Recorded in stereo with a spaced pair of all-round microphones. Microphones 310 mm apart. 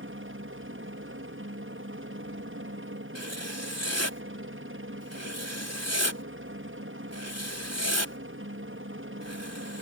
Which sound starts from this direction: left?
Writing, at 3.1 s.